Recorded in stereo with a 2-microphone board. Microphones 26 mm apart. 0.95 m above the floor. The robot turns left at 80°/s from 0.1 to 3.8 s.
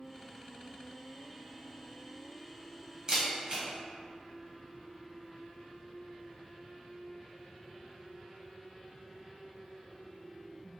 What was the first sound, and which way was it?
A camera shutter, 25° right (ahead or behind).